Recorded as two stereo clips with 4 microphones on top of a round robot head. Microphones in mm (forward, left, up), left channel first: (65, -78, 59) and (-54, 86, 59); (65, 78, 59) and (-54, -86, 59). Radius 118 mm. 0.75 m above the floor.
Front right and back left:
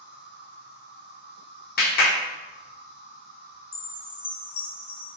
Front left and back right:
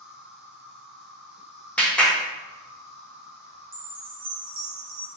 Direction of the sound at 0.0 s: 150° left.